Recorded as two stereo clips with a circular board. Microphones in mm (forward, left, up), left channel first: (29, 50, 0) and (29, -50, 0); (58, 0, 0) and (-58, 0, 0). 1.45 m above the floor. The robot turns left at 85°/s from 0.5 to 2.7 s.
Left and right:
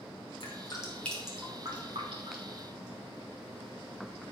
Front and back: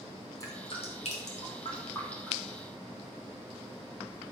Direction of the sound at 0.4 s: 60° left.